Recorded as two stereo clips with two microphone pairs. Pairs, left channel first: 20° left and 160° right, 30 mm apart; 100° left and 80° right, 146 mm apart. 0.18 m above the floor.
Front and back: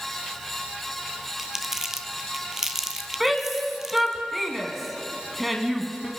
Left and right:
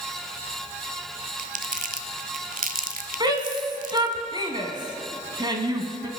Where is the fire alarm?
I don't hear a fire alarm.